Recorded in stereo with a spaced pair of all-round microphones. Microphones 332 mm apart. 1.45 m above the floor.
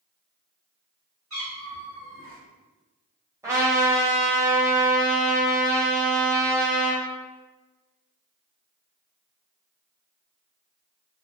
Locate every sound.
1.3 s a cat meowing: 45° right (ahead or behind), 1.9 m
3.4 s a trumpet: 10° right (ahead or behind), 0.9 m